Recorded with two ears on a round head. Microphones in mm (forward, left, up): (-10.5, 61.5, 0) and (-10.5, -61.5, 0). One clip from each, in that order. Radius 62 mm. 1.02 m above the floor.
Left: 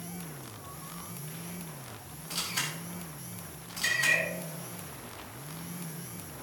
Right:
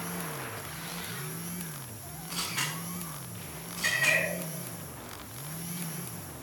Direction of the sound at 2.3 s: 75° left (ahead or behind).